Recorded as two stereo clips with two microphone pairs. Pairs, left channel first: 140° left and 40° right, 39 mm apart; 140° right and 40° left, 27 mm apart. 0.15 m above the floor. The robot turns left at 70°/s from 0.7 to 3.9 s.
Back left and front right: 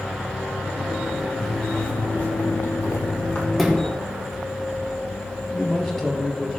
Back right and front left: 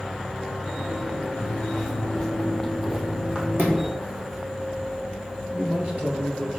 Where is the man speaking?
50° left, 2.5 m.